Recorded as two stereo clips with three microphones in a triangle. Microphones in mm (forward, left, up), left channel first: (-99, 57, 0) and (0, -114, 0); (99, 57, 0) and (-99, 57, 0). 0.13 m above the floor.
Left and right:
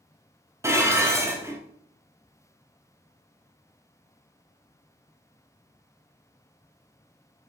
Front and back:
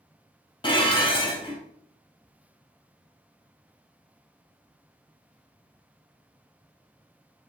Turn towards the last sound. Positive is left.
turn(degrees=-5)